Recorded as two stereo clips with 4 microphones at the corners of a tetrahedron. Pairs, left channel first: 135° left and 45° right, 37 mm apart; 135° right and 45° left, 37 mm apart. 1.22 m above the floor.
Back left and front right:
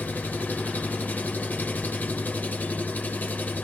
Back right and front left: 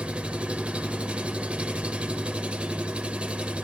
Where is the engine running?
100° left, 0.8 m.